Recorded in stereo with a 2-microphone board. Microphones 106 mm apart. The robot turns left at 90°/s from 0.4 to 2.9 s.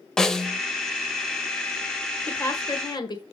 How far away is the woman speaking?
About 1.6 m.